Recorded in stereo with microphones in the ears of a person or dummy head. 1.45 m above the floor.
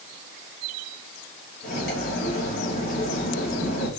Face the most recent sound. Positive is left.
turn(degrees=55)  # may be behind; listen again after turning